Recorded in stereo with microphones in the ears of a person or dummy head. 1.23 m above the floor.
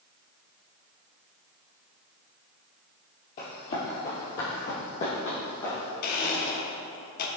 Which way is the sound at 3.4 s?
45° left (ahead or behind).